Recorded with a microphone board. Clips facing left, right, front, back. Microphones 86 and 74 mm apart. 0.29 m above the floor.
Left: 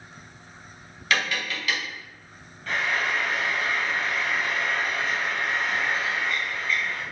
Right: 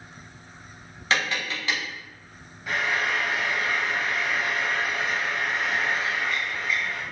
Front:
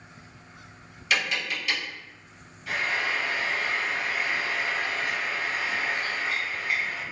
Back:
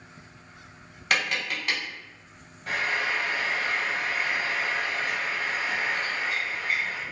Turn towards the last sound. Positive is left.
turn(degrees=-165)